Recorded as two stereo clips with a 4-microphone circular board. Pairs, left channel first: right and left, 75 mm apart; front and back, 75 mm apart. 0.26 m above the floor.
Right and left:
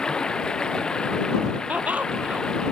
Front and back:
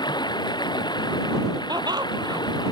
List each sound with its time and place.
0.0 s running water: 10° right
1.7 s laughter: 160° left